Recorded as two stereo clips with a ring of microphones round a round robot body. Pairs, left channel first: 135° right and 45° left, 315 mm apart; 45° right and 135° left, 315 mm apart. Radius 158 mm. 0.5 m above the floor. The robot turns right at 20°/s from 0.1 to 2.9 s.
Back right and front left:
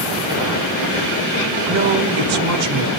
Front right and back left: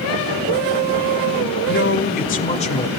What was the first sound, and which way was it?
A man speaking, straight ahead.